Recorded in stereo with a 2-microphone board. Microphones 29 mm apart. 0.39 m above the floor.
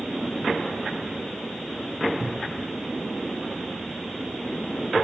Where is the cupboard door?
45° right (ahead or behind), 0.5 m.